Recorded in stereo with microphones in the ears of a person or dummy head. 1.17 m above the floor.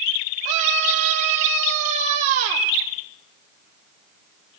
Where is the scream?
40° right (ahead or behind), 3 m.